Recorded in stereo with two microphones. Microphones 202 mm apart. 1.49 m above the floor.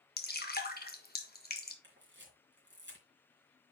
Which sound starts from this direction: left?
Dripping, at 0.2 s.